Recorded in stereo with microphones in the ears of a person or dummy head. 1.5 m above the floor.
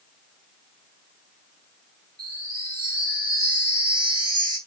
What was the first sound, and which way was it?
A chime, 15° right (ahead or behind).